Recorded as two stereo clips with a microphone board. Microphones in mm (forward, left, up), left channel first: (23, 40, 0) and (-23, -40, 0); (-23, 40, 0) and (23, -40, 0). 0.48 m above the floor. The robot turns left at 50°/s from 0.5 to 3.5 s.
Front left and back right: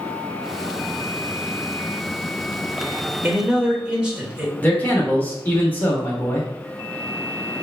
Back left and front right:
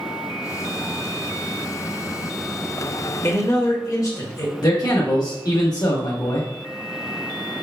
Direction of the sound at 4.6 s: 120° left.